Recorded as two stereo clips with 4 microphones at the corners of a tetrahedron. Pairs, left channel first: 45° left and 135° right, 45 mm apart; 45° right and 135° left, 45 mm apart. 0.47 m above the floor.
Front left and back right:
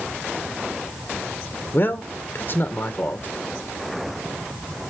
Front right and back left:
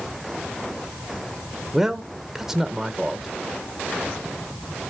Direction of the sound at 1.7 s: 55° left.